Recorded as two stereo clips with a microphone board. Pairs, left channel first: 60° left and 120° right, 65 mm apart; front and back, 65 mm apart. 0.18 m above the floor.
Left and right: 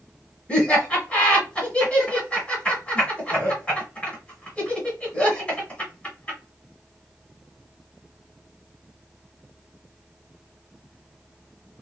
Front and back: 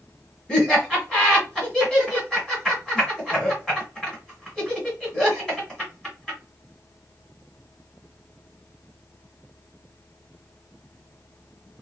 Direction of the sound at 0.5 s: 60° left.